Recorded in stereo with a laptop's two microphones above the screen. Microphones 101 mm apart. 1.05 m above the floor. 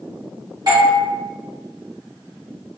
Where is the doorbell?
45° right (ahead or behind), 1.1 m.